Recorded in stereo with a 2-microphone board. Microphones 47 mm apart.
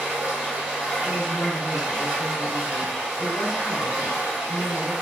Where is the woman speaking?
20° left (ahead or behind), 1.0 m.